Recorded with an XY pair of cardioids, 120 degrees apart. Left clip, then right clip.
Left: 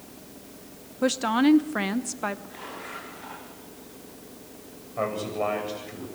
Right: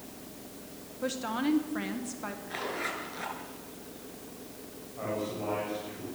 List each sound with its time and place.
1.0 s a woman speaking: 50° left, 1.2 m
2.5 s a zipper: 55° right, 7 m
5.0 s a man speaking: 70° left, 9 m